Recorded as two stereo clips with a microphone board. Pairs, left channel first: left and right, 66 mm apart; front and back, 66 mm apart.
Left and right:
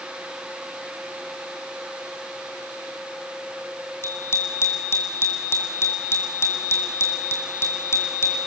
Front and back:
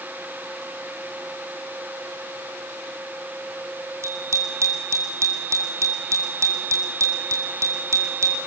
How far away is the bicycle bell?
About 3 m.